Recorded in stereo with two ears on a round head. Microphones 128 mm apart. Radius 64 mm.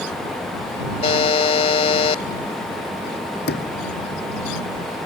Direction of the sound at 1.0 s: 45° left (ahead or behind).